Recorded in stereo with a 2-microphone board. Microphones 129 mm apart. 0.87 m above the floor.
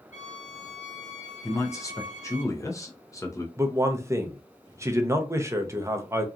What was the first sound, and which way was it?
A violin, 70° left (ahead or behind).